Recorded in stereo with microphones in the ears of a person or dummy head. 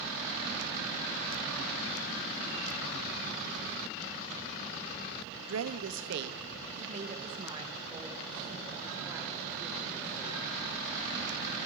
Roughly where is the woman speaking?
Right.